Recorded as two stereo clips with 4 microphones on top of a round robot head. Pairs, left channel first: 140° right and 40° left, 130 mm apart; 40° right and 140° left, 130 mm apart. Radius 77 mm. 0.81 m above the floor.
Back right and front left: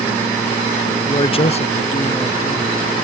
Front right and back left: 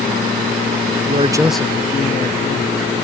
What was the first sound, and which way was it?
A man speaking, 165° left.